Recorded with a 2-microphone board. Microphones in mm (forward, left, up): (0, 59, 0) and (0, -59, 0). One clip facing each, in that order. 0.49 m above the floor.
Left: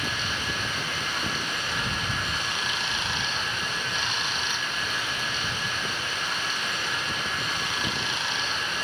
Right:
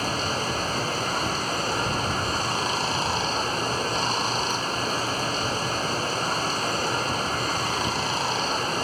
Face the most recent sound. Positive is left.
turn(degrees=-35)  # may be behind; listen again after turning